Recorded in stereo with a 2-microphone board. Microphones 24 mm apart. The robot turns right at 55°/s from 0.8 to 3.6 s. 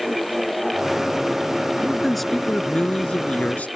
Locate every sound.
1.8 s a man speaking: 20° right; by 3.7 s 80° left